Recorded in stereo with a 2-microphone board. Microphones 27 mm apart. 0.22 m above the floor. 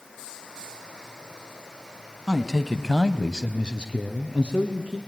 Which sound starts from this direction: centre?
A man speaking, at 2.3 s.